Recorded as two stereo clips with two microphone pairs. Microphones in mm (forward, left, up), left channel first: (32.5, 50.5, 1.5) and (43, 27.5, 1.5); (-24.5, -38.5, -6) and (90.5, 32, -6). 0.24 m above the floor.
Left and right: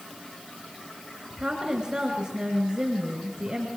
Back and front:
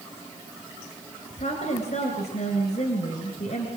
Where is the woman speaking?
125° right, 3 m.